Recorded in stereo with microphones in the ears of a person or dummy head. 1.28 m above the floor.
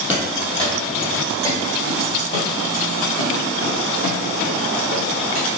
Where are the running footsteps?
Centre (ahead or behind), 1.8 m; by 5.5 s 60° left (ahead or behind), 3 m.